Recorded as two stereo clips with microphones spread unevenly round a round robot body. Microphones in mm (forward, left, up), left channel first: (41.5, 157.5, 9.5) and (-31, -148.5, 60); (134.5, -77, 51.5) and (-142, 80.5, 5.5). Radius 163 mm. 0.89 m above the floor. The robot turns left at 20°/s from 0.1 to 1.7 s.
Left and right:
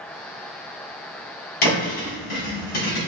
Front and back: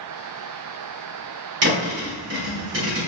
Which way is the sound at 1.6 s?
100° left.